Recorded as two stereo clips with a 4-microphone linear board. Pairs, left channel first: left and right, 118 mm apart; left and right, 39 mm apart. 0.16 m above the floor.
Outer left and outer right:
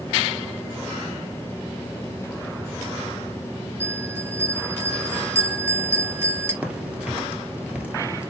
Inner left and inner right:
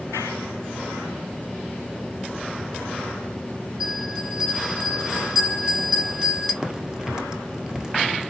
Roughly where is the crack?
Centre.